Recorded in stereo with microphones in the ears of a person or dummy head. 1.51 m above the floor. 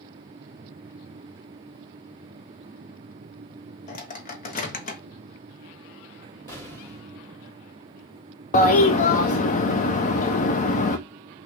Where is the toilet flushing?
40° left (ahead or behind), 0.7 m.